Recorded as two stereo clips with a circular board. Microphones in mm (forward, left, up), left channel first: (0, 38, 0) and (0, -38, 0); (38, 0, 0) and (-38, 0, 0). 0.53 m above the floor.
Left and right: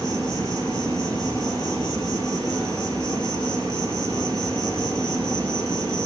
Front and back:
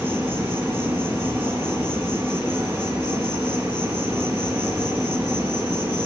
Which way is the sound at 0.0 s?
115° right.